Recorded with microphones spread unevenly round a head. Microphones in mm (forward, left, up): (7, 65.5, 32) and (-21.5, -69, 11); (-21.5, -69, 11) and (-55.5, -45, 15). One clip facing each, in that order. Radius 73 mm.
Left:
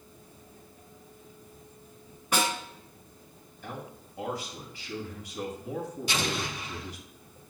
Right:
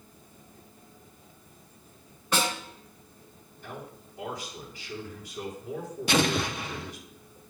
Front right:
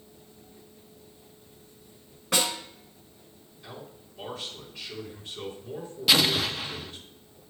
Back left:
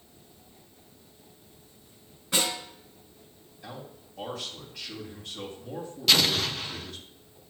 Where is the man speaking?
110° left, 3 m.